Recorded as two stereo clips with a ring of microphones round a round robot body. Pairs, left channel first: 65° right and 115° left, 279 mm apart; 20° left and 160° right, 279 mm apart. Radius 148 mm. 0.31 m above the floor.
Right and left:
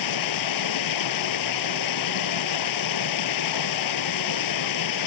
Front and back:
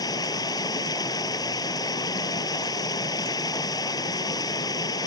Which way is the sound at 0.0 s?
55° right.